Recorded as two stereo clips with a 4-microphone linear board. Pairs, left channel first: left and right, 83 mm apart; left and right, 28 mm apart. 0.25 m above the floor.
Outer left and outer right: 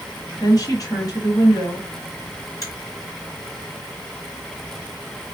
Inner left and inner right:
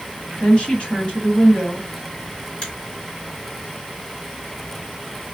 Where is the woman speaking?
45° left (ahead or behind), 1.5 m.